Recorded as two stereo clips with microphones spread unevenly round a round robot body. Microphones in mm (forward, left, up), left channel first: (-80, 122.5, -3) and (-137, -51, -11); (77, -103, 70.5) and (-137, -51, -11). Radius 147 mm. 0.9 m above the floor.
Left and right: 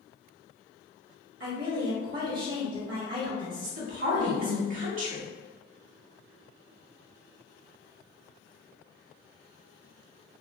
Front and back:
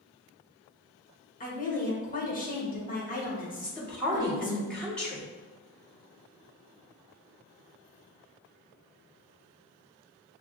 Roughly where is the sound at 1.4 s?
Right.